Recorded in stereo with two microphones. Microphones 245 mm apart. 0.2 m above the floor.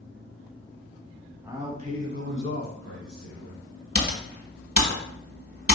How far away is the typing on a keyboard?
About 1.1 m.